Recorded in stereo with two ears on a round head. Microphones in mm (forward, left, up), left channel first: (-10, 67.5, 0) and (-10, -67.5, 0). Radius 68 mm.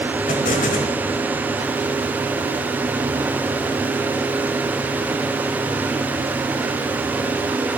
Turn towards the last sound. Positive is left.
turn(degrees=55)  # may be behind; listen again after turning